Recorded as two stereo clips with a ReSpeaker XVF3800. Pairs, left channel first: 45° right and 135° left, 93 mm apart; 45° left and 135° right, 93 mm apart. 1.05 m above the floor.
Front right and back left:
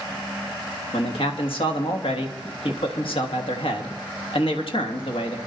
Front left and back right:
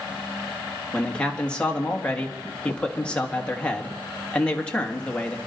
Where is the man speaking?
35° right, 1.6 m.